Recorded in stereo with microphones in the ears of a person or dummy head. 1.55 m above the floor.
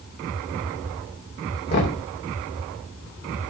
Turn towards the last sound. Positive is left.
turn(degrees=55)  # may be behind; listen again after turning